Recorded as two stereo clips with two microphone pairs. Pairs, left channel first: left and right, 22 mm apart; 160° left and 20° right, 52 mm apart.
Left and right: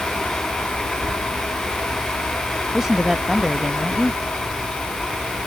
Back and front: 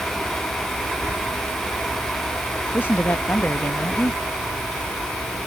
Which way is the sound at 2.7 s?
150° right.